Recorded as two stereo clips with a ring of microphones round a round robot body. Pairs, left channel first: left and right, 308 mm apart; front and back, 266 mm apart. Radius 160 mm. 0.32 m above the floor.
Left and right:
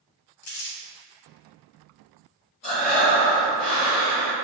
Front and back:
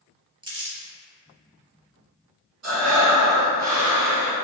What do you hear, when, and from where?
0.4 s crumpling: 105° left, 0.9 m
2.6 s breathing: 160° left, 1.6 m